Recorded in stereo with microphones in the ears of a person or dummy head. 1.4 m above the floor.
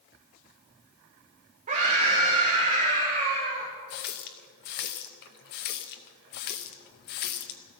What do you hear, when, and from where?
1.7 s a scream: 40° right (ahead or behind), 1.8 m
3.9 s a running tap: 45° left (ahead or behind), 0.7 m